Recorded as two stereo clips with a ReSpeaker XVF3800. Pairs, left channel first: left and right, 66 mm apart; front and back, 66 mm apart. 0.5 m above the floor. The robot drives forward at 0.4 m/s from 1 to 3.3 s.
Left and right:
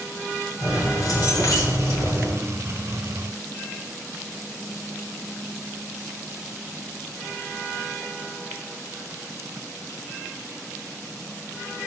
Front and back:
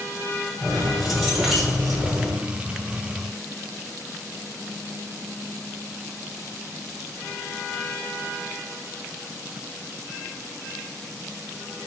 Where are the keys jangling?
85° left, 1.6 m; by 2.4 s 105° left, 1.7 m.